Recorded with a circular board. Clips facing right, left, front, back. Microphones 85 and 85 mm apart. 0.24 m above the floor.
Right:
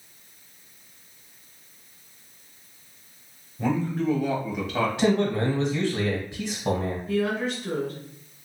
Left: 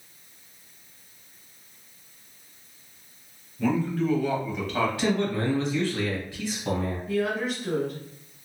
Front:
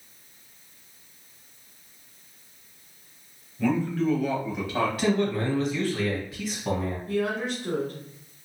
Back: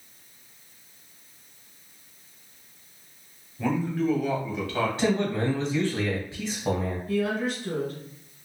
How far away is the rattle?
I don't hear a rattle.